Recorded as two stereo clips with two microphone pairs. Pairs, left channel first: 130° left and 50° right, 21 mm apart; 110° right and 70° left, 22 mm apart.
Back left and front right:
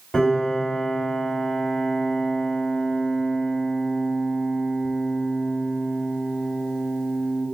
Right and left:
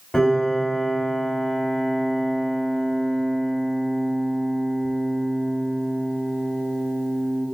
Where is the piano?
170° right, 2.0 m.